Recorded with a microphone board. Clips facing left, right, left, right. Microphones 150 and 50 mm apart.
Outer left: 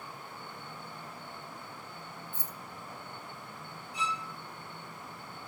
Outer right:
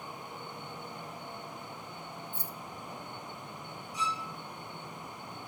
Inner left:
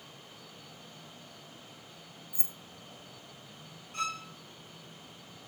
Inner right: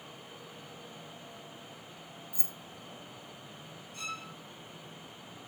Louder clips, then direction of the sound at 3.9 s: Even, inner left 6 dB; 65° left (ahead or behind).